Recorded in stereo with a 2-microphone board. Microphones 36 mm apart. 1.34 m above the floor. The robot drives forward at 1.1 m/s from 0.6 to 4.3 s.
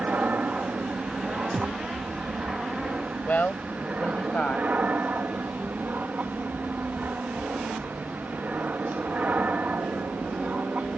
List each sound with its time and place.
0.0 s an aircraft: 45° right (ahead or behind)
1.5 s a thud: 25° right (ahead or behind); by 1.8 s 20° right (ahead or behind)
3.2 s a woman speaking: 45° left (ahead or behind); by 4.7 s 40° left (ahead or behind)